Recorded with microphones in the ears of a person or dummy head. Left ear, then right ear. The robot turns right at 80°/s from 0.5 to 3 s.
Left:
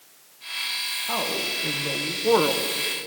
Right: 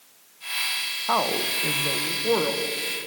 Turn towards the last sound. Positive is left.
turn(degrees=75)